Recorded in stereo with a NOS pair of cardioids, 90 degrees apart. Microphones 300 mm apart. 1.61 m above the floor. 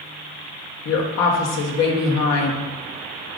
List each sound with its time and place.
0.8 s a woman speaking: 60° left, 1.2 m